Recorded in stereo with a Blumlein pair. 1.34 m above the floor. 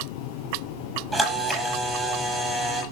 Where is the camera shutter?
Straight ahead, 8 m.